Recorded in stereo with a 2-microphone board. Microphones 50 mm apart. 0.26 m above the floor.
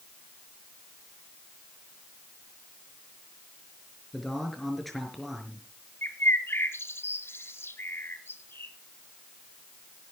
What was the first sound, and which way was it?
A man speaking, centre (ahead or behind).